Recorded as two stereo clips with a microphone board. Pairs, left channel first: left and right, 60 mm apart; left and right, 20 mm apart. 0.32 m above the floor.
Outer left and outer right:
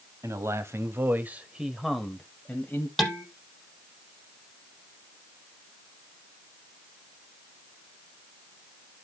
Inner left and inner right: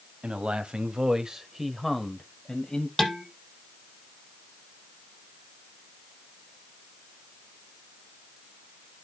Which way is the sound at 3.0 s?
5° left (ahead or behind).